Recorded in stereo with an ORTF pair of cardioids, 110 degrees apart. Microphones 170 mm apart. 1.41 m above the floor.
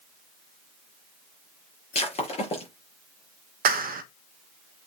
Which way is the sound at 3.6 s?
65° right.